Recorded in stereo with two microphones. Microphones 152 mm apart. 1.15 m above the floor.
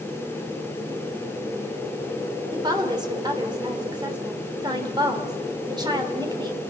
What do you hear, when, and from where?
2.5 s a woman speaking: 30° right (ahead or behind), 3 m